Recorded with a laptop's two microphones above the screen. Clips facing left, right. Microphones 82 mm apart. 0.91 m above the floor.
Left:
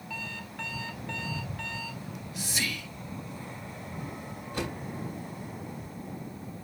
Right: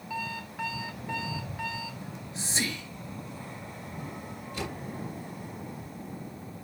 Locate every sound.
0.1 s an alarm clock: 10° right (ahead or behind), 1.2 m
2.0 s whispering: 30° right (ahead or behind), 1.4 m
4.5 s a door slam: 45° left (ahead or behind), 5.5 m